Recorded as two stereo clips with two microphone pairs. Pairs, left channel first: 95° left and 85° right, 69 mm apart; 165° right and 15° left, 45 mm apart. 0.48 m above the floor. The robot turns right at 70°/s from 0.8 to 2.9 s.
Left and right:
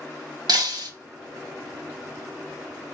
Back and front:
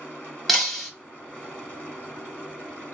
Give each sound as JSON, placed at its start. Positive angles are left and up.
{"t": 0.5, "sound": "breaking glass", "azimuth_deg": -70, "distance_m": 1.8}